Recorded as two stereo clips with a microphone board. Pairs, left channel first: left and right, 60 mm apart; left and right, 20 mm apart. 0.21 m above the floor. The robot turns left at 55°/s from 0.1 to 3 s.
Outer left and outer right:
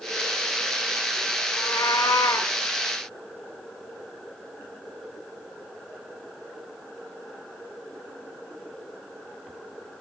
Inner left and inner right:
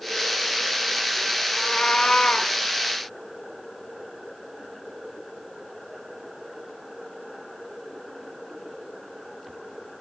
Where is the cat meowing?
120° left, 0.9 m; by 2.5 s 60° left, 0.9 m.